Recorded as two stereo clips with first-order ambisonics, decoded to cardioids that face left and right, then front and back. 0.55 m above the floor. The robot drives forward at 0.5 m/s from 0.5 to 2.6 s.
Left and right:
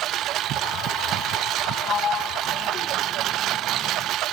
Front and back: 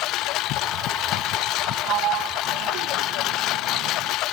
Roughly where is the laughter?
I don't hear laughter.